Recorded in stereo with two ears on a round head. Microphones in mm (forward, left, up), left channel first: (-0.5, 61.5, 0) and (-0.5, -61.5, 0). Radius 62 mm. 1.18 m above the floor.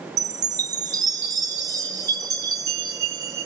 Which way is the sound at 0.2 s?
25° right (ahead or behind).